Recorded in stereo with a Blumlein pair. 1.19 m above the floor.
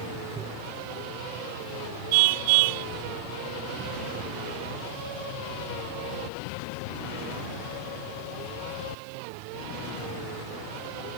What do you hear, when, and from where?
0.4 s tapping: 25° right
2.1 s a car horn: 50° right